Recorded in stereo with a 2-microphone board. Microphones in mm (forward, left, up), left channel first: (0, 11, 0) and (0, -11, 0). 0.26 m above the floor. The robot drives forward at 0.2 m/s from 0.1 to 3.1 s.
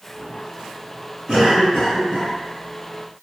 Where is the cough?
40° right (ahead or behind), 2.0 m.